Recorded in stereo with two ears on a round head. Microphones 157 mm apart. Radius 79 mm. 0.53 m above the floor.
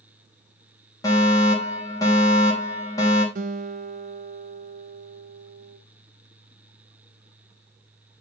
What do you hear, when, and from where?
1.0 s a fire alarm: 20° left (ahead or behind), 4 m
3.4 s a guitar: 50° right (ahead or behind), 1.7 m